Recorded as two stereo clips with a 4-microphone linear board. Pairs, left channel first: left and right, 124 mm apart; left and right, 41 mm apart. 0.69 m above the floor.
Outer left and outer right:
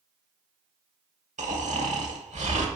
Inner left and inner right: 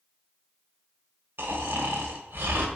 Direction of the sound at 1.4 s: 75° right (ahead or behind).